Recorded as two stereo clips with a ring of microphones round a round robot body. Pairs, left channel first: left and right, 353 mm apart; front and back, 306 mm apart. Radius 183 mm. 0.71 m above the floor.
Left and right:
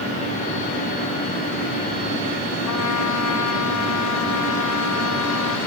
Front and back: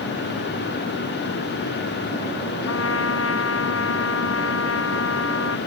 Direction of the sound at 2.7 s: 45° left.